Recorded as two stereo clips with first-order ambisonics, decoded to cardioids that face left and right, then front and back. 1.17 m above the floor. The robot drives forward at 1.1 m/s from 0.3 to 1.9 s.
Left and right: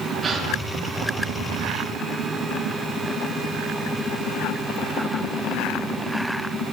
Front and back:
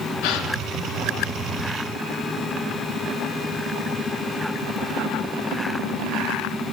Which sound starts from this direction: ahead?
A gasp, at 0.2 s.